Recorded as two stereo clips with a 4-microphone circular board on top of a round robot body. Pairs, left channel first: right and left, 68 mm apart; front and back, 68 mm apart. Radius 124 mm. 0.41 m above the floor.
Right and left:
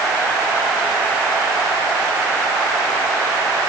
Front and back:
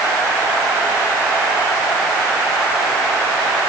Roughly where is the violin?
I don't hear a violin.